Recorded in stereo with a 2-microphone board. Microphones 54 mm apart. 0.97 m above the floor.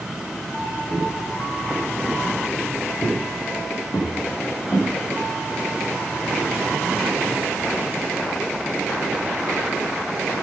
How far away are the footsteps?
About 7.5 m.